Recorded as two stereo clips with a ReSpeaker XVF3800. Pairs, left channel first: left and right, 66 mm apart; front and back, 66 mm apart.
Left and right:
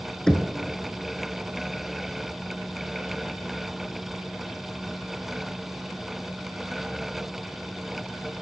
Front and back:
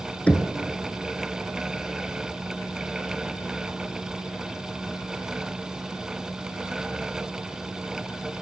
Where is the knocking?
25° left, 0.8 m.